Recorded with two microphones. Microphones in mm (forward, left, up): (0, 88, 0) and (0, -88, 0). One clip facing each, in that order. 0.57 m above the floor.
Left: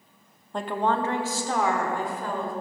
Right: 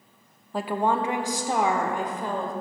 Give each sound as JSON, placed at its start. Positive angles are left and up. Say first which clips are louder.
{"t": 0.5, "sound": "a woman speaking", "louder": "right 1 dB", "side_deg": -5, "distance_m": 0.6}